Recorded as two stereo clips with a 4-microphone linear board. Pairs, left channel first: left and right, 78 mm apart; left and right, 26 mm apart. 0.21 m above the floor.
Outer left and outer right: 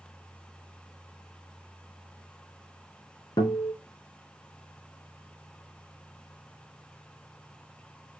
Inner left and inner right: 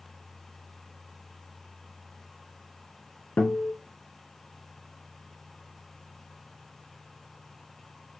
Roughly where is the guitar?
Left.